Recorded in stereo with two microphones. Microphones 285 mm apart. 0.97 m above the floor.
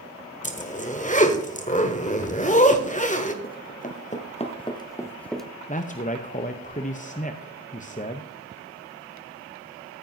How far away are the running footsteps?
About 1.5 m.